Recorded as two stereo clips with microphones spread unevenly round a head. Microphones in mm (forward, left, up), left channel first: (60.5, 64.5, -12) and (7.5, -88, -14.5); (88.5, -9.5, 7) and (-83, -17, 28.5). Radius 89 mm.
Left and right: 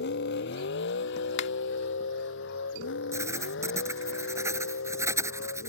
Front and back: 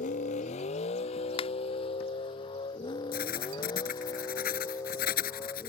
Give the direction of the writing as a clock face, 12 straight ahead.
1 o'clock.